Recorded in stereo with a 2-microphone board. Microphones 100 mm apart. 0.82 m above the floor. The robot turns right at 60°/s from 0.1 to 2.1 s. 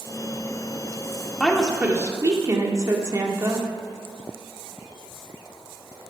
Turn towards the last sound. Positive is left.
turn(degrees=-145)